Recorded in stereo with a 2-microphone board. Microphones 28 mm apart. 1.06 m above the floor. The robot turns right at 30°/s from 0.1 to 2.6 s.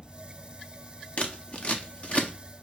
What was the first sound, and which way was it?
Scissors, 45° left (ahead or behind).